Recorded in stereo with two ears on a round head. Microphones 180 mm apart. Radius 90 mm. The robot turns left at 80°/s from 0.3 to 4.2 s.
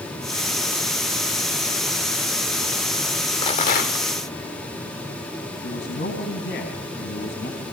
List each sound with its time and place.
3.4 s a rattle: 150° left, 2 m; by 4.1 s 95° left, 2 m
5.6 s a man speaking: 55° left (ahead or behind), 4 m